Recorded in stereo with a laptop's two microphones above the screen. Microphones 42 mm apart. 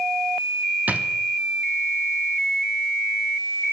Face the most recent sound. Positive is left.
turn(degrees=-40)  # may be behind; listen again after turning